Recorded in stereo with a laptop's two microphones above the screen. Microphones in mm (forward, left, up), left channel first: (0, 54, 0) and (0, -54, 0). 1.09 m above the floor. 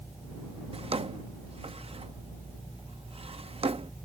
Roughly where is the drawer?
Right.